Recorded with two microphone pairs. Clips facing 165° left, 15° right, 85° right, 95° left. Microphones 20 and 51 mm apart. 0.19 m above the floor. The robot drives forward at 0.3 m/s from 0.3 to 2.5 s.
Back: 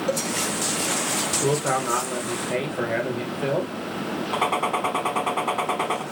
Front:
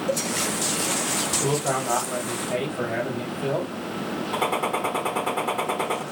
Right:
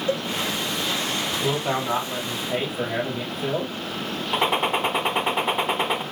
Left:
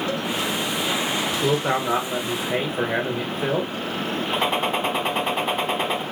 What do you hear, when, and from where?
0.1 s a cowbell: 150° right, 0.7 m
1.4 s a man speaking: 115° left, 2.5 m; by 3.8 s 120° left, 2.5 m
4.3 s a gunshot: 165° right, 1.0 m